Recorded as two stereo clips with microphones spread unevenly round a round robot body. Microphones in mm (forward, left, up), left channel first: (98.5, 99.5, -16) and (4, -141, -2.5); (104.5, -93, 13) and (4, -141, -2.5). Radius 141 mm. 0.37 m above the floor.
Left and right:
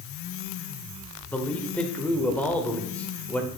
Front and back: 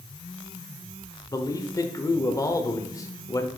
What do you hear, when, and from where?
1.3 s a man speaking: 5° right, 0.8 m